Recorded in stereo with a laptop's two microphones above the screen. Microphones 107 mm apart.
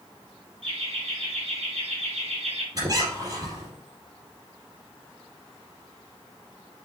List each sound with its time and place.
0.6 s laughter: 65° right (ahead or behind), 1.8 m; by 2.6 s 75° right (ahead or behind), 2 m
2.8 s a squeak: 35° right (ahead or behind), 4.5 m